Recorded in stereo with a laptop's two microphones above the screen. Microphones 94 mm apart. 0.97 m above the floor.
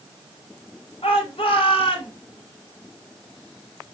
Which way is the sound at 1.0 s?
85° left.